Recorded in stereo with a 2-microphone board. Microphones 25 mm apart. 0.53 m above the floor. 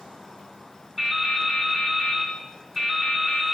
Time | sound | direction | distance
1.0 | dripping | 15° right (ahead or behind) | 4.5 m